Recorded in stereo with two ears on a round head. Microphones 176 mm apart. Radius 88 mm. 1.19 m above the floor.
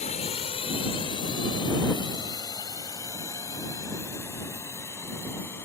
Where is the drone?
30° left (ahead or behind); by 5.7 s 10° left (ahead or behind).